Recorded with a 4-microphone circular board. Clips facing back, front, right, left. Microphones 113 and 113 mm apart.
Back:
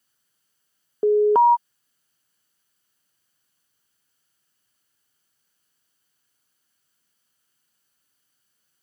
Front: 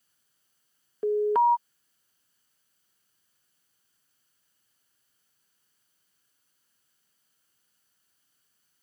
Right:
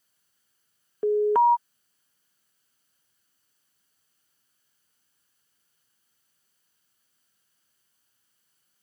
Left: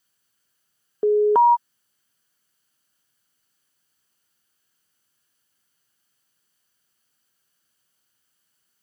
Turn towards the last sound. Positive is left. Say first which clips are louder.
# back 7 dB, left 4 dB
turn(degrees=145)